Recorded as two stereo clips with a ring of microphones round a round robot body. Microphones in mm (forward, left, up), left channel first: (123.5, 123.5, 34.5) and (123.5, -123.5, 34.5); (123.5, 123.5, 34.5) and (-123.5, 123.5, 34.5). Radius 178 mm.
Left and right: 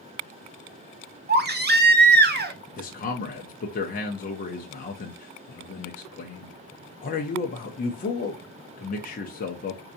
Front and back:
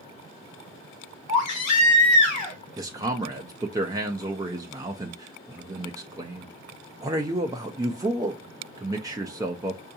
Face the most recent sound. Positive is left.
turn(degrees=110)